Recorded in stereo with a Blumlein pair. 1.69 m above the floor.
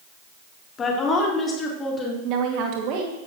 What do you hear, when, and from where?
0.8 s a woman speaking: 20° left, 3.5 m; by 2.1 s 15° left, 4 m
2.2 s a woman speaking: 40° right, 2 m